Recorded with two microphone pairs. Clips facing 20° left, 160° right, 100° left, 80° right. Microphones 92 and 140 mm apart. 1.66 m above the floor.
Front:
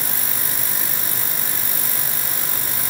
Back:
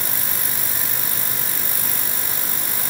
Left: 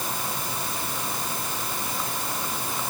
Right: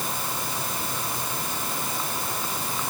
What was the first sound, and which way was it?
Only background noise.